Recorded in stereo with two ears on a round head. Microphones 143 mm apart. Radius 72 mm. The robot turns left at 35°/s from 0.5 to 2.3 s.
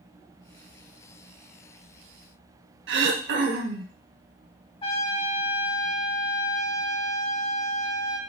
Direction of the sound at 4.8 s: 35° left (ahead or behind).